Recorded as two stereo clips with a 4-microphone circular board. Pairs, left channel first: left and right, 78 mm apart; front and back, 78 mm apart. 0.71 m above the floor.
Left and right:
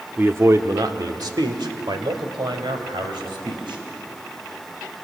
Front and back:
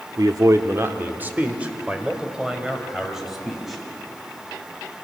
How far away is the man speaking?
About 1.2 m.